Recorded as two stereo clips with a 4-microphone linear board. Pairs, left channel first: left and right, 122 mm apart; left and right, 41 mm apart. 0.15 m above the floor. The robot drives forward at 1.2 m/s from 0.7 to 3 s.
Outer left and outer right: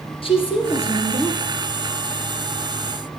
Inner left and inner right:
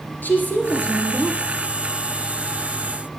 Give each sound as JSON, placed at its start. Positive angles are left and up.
{"t": 0.2, "sound": "a woman speaking", "side_deg": 45, "distance_m": 3.0}